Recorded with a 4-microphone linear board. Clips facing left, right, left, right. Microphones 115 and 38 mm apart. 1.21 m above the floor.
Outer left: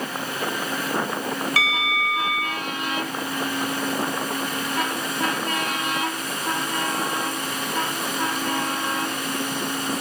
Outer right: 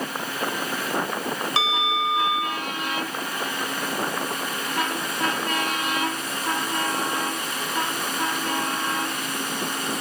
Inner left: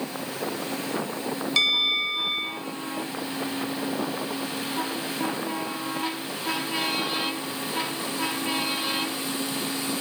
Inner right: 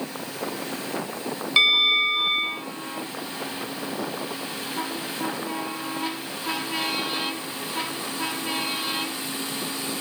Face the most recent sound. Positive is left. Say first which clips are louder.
# outer right 1 dB, inner right 5 dB
turn(degrees=-25)  # may be behind; listen again after turning